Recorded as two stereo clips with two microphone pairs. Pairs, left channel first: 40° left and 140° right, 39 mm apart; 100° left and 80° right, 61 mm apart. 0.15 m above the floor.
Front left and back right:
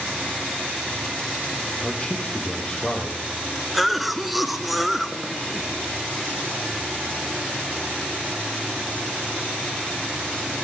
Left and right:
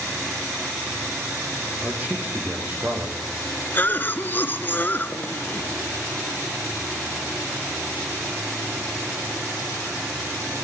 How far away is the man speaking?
About 6.5 m.